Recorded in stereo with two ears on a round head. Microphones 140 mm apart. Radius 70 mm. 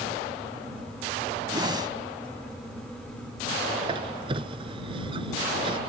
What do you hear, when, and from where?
1.5 s a whoosh: 30° right (ahead or behind)
3.8 s a squeak: 30° right (ahead or behind)